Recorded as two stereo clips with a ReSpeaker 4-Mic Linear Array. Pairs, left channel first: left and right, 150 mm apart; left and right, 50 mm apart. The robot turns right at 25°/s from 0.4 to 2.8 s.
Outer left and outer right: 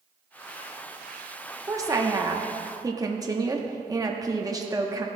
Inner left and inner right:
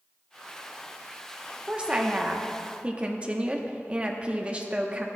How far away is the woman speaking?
About 0.8 m.